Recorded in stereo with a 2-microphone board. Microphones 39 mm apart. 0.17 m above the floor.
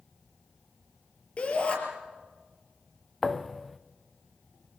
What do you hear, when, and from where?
1.4 s a shout: 30° left (ahead or behind), 5 m
3.2 s a thud: 5° left (ahead or behind), 0.9 m